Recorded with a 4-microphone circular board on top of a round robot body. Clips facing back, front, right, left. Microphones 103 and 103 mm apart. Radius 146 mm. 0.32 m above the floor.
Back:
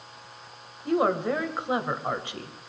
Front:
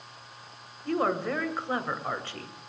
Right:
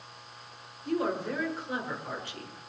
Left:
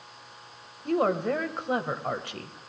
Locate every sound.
0.8 s a woman speaking: 110° left, 2 m